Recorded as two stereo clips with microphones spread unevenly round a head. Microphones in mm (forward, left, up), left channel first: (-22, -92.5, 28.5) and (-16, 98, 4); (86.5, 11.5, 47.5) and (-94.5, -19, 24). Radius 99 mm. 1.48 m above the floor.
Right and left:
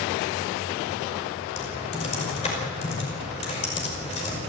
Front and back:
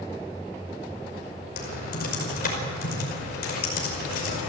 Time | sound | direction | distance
1.6 | typing on a keyboard | 35° right | 5.5 m